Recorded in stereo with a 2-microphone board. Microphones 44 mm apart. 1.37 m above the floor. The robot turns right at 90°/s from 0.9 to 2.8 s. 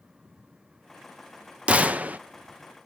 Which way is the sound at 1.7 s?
125° right.